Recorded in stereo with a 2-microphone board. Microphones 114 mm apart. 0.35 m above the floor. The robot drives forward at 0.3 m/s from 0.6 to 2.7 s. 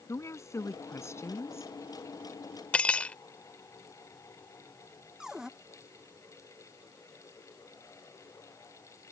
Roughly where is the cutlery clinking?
Centre.